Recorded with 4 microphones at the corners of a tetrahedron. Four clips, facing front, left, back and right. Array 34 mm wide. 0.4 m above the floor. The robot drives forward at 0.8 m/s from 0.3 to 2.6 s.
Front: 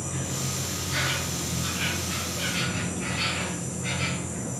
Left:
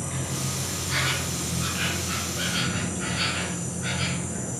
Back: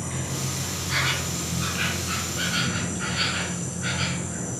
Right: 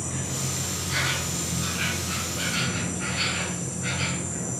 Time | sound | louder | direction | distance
0.0 | an insect | even, back 1 dB | 150° left | 2 m